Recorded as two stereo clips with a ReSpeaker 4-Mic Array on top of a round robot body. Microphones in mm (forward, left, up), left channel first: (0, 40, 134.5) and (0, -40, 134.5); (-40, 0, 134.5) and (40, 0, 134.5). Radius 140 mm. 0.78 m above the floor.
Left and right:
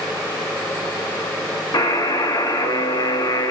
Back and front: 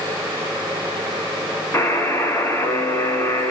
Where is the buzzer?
120° left, 0.9 m.